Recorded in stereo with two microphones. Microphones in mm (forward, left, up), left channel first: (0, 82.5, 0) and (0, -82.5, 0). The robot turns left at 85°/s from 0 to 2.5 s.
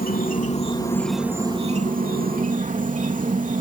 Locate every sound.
0.0 s an insect: 95° left; by 3.6 s 115° right